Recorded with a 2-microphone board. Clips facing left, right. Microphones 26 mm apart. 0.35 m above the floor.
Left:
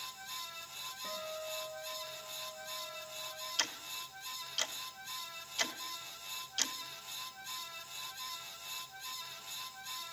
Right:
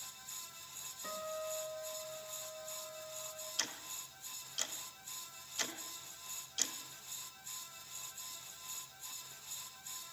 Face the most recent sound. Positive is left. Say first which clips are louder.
# left 4 dB
turn(degrees=25)  # may be behind; listen again after turning